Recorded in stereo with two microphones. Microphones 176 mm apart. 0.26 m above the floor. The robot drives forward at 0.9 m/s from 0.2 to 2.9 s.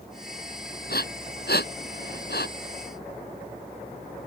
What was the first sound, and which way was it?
Breathing, 75° left (ahead or behind).